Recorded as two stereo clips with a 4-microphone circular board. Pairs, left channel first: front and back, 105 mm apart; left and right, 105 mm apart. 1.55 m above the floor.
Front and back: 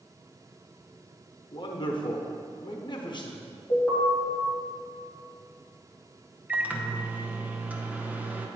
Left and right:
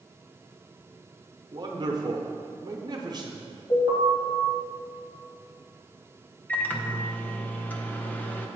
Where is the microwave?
130° left, 0.6 m.